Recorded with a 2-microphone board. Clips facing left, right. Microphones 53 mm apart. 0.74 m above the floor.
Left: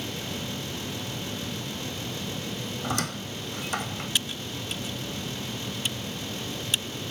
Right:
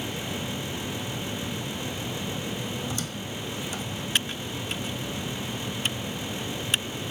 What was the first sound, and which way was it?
A squeak, 65° left (ahead or behind).